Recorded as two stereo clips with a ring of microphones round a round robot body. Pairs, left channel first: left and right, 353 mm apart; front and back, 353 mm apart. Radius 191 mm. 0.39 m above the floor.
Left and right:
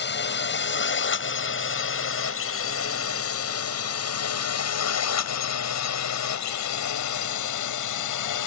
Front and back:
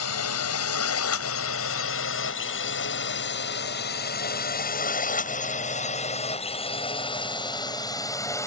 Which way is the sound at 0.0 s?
40° left.